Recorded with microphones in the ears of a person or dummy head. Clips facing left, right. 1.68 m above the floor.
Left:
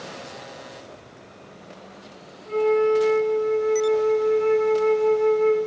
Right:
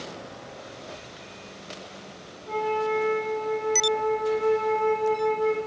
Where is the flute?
40° left (ahead or behind), 6 m.